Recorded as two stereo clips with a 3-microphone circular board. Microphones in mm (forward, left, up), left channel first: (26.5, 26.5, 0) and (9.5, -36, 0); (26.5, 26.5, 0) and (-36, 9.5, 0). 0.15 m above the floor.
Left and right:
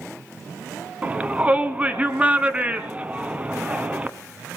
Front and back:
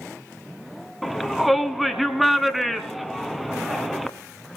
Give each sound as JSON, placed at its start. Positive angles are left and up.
{"t": 1.0, "sound": "a shout", "azimuth_deg": -80, "distance_m": 1.1}